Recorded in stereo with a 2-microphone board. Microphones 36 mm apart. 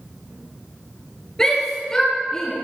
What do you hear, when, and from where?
1.4 s a shout: 20° left (ahead or behind), 5 m; by 2.5 s 15° left (ahead or behind), 5.5 m